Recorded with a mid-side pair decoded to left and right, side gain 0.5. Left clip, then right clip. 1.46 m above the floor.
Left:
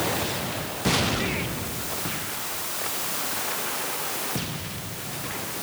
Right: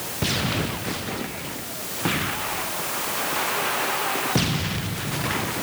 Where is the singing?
No singing in this recording.